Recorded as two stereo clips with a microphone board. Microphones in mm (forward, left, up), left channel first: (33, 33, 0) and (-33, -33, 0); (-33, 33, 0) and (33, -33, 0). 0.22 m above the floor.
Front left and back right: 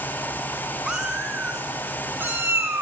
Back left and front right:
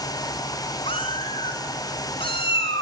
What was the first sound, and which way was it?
A cat meowing, 145° left.